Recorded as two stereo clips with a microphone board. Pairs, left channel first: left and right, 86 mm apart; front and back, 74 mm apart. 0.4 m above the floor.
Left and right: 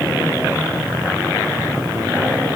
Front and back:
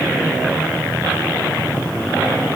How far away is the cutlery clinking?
I don't hear cutlery clinking.